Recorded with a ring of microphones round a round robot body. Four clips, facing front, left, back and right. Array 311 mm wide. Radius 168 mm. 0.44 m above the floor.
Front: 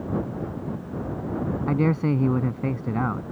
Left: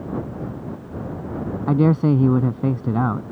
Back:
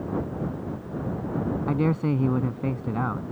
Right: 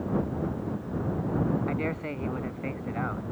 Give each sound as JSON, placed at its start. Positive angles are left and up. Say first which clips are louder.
{"t": 1.7, "sound": "a man speaking", "louder": "left 14 dB, front 3 dB", "azimuth_deg": 85}